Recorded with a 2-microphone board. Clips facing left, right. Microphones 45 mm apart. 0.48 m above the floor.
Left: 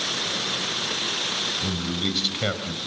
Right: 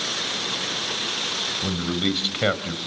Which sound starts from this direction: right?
A man speaking, at 1.6 s.